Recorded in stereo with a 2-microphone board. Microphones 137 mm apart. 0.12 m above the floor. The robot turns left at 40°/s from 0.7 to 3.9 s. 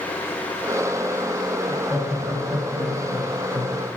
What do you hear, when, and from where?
1.7 s laughter: 5° right (ahead or behind), 1.1 m; by 3.8 s 20° left (ahead or behind), 1.1 m